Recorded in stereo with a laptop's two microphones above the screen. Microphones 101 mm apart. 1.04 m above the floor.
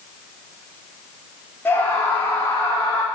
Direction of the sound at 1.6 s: 20° left (ahead or behind).